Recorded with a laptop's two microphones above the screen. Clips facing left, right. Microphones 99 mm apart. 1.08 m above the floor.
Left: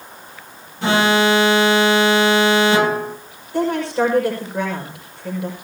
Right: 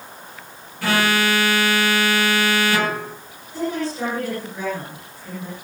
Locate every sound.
0.8 s an alarm: 20° left (ahead or behind), 1.4 m
3.5 s a woman speaking: 60° left (ahead or behind), 5.5 m